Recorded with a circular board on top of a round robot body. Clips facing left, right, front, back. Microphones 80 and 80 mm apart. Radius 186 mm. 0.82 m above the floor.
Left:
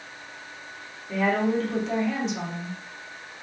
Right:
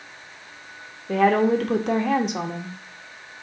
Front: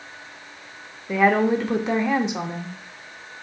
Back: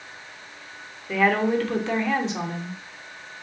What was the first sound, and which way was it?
A woman speaking, 70° right.